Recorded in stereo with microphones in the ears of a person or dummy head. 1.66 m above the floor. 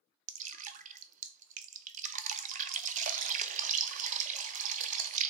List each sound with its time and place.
0.3 s dripping: 45° right (ahead or behind), 0.5 m